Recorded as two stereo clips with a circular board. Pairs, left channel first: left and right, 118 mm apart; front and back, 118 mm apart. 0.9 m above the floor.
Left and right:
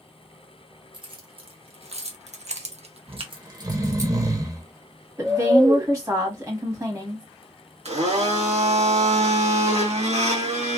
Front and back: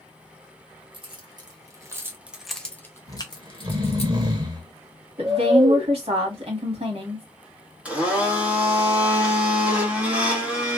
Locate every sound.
0.9 s keys jangling: 135° right, 1.1 m; by 4.1 s 25° right, 0.9 m
3.1 s snoring: 140° right, 0.8 m
5.2 s a woman speaking: 150° right, 1.5 m
7.8 s a blender: 100° right, 1.4 m